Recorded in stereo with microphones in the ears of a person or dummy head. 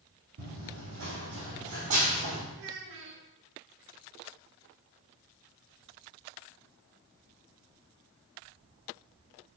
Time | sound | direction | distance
0.4 | running footsteps | 50° right (ahead or behind) | 3 m
2.5 | a child speaking | 60° right (ahead or behind) | 1.1 m